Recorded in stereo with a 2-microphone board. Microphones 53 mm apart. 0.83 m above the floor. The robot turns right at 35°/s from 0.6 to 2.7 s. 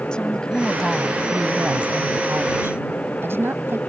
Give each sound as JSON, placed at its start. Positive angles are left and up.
{"t": 0.1, "sound": "a woman speaking", "azimuth_deg": 165}